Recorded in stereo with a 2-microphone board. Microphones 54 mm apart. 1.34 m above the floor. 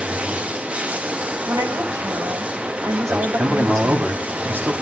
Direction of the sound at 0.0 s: 20° right (ahead or behind).